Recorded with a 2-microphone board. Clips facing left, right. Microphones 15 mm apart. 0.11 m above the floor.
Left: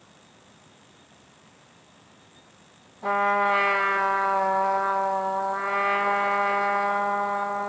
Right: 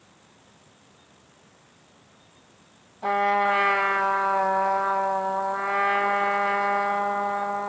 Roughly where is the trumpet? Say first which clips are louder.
Even; right.